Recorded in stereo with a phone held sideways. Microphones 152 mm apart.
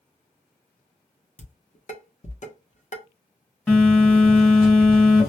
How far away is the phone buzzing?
About 1.2 m.